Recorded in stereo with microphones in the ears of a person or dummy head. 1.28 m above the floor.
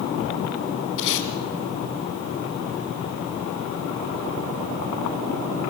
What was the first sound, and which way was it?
Tape being pulled, 60° left (ahead or behind).